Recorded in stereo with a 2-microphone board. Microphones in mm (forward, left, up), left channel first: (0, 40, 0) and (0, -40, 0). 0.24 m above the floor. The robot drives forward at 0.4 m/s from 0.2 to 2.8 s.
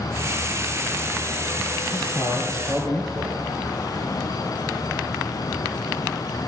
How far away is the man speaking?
About 4.5 m.